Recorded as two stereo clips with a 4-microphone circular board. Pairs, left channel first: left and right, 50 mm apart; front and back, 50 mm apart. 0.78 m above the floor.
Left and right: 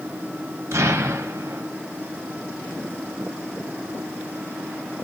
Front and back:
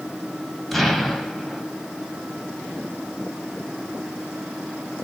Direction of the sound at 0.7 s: 85° right.